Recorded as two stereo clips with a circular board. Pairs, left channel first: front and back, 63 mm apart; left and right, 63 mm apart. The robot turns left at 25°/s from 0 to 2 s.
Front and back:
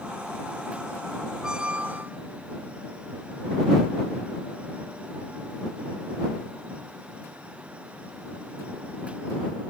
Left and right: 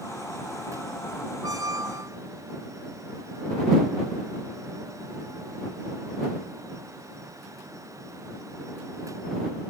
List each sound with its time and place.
1.4 s a squeak: 100° right; by 2.2 s 115° right